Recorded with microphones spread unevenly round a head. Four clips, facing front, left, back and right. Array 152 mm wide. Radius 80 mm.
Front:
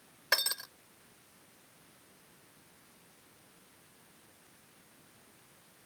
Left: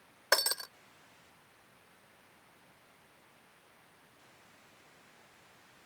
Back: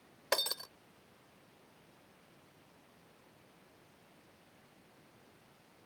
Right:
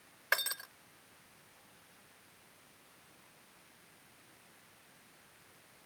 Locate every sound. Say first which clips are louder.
0.3 s breaking glass: left 5 dB, even; 120° left